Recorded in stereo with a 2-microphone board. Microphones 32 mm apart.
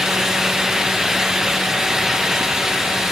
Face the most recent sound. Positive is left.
No sound to turn to.